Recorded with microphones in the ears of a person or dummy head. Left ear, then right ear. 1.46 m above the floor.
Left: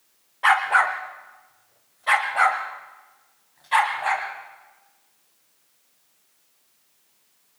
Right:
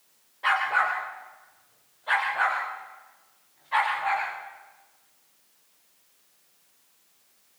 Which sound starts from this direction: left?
A dog barking, at 0.4 s.